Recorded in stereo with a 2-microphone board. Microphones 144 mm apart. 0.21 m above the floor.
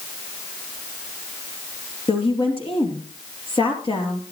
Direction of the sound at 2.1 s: 40° left (ahead or behind).